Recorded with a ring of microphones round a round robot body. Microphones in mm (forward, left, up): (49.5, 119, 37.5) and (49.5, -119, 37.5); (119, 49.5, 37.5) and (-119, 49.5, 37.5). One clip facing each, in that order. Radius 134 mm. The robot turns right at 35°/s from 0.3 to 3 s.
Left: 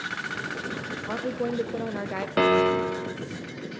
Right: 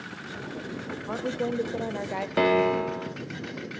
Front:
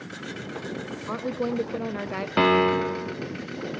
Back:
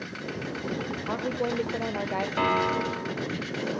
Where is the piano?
5° left, 0.6 m; by 3.2 s 30° left, 0.6 m.